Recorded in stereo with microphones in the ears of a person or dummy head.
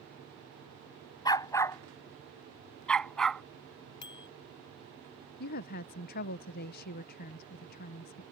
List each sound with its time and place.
1.2 s a dog barking: 20° left (ahead or behind); by 3.4 s centre (ahead or behind)
4.0 s a bicycle bell: 25° left (ahead or behind)
5.4 s a woman speaking: 50° left (ahead or behind)